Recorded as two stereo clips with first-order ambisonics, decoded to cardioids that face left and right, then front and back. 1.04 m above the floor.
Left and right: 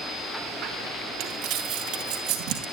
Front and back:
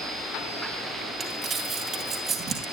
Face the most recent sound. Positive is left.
turn(degrees=-120)